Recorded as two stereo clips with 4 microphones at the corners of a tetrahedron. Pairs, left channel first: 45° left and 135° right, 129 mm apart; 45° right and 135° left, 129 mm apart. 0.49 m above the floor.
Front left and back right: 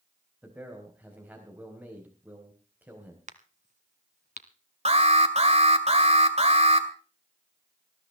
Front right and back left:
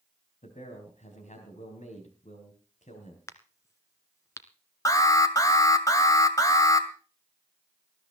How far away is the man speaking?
About 4 m.